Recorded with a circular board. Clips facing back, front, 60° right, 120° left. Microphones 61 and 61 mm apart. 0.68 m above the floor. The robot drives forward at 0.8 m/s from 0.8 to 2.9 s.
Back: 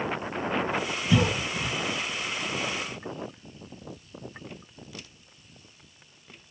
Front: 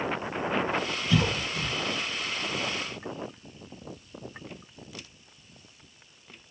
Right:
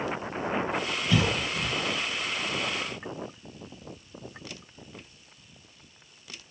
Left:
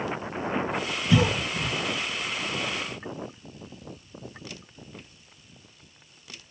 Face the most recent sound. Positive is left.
turn(degrees=175)